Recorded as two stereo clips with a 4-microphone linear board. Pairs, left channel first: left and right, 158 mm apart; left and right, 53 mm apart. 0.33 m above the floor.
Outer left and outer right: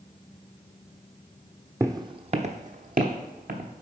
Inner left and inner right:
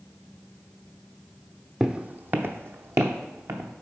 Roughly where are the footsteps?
Centre.